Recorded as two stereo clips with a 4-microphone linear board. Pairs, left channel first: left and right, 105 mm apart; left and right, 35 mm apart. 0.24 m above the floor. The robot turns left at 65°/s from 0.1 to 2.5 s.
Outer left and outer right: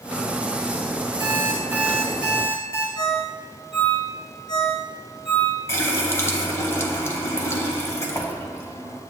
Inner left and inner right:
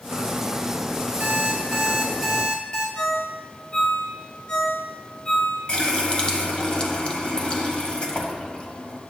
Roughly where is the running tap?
Left.